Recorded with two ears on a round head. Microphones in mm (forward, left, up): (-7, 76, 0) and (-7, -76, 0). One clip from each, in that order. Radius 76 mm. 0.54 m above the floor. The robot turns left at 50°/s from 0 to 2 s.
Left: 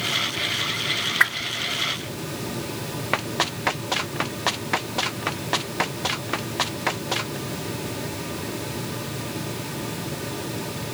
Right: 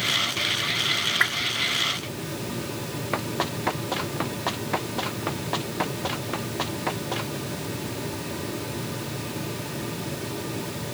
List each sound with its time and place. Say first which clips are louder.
1.2 s a whoosh: left 2 dB; 25° left (ahead or behind)
3.1 s running footsteps: left 4 dB; 50° left (ahead or behind); by 7.4 s 45° left (ahead or behind)